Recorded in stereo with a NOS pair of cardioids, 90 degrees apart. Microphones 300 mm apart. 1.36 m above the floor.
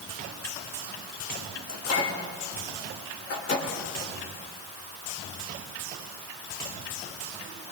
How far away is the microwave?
About 3 m.